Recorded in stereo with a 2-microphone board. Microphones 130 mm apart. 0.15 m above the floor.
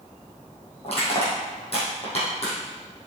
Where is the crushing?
50° left (ahead or behind), 4 m.